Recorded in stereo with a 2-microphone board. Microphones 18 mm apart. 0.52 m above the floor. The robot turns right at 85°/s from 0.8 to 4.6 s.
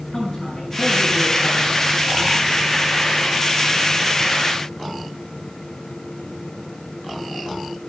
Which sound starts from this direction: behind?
A man speaking, at 0.1 s.